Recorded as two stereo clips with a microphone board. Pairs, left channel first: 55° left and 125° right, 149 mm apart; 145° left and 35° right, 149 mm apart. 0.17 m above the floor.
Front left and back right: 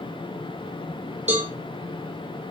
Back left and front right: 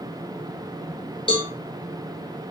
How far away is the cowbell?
About 1.7 m.